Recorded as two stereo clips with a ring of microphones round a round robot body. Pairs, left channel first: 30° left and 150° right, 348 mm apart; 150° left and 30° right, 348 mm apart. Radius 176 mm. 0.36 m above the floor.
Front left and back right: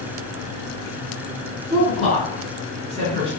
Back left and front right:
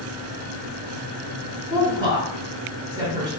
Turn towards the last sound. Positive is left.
turn(degrees=-95)